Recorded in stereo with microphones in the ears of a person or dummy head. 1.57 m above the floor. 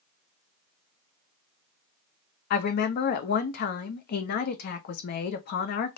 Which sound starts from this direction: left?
A woman speaking, at 2.5 s.